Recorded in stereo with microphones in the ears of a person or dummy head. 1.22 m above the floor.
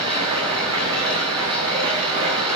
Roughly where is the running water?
Right.